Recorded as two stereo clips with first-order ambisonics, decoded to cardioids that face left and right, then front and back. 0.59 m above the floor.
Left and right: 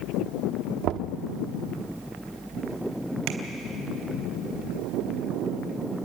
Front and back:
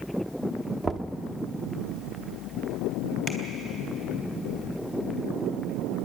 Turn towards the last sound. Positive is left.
turn(degrees=-75)